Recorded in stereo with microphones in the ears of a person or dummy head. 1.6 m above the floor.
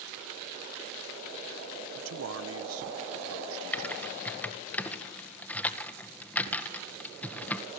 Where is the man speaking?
85° right, 1.0 m.